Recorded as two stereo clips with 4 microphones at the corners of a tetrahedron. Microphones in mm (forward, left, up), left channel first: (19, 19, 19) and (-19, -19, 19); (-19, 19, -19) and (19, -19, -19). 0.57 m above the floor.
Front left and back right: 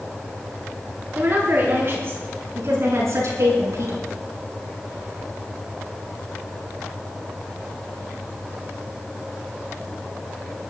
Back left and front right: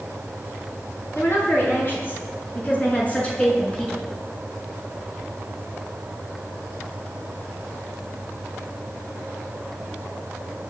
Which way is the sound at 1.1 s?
170° left.